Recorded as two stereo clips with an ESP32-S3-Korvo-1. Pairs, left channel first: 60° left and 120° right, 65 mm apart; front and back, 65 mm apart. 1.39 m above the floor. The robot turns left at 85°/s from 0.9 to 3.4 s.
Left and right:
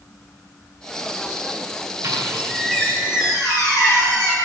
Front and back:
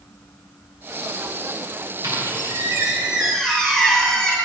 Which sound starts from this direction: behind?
A squeak, at 2.0 s.